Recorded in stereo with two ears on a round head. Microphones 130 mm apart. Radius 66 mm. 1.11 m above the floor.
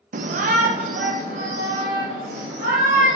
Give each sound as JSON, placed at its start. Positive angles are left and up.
{"t": 0.1, "sound": "a shout", "side_deg": -55, "distance_m": 0.5}